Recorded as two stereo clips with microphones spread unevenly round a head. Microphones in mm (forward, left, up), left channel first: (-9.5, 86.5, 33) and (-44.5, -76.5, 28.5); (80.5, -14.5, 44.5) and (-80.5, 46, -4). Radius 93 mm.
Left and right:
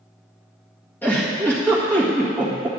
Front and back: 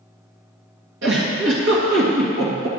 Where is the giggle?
155° left, 1.7 m.